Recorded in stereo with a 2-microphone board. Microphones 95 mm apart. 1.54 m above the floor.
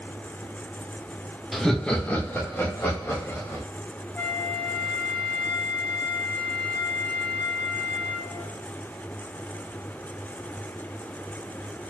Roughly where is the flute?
Centre.